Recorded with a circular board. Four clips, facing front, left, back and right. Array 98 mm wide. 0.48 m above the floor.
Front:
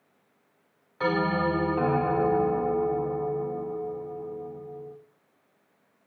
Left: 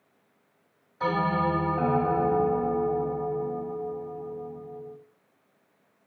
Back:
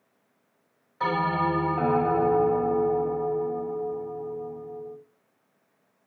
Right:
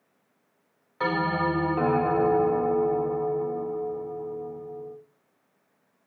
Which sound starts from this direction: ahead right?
A bell, at 1.0 s.